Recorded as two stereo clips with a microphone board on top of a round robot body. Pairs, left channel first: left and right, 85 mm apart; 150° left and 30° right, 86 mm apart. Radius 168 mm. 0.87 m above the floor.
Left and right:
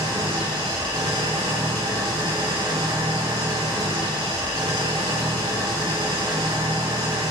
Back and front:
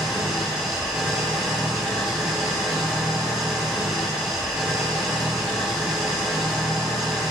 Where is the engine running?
115° right, 3 m.